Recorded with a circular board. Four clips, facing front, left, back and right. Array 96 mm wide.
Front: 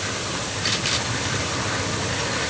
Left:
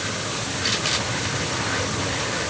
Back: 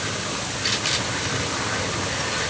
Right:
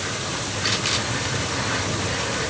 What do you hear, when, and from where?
Only background noise.